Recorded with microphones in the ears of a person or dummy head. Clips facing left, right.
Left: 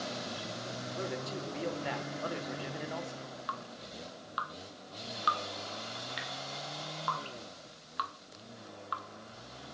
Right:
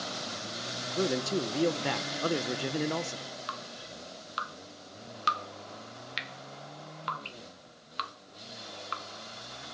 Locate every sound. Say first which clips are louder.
0.8 s a man speaking: right 9 dB; 55° right (ahead or behind), 1.1 m
3.5 s dripping: right 1 dB; 25° right (ahead or behind), 0.6 m